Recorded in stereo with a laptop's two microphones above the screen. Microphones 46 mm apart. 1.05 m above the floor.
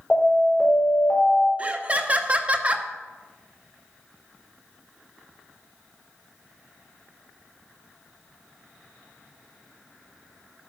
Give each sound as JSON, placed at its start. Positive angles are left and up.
{"t": 0.1, "sound": "an alarm", "side_deg": 10, "distance_m": 4.0}
{"t": 1.6, "sound": "laughter", "side_deg": -30, "distance_m": 0.7}